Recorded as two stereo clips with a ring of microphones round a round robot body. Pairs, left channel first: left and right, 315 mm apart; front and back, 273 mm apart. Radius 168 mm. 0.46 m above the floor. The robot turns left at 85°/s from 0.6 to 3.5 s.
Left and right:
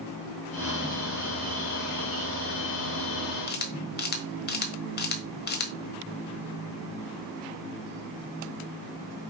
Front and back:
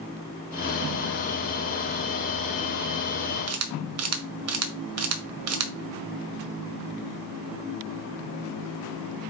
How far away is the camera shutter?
About 1.4 m.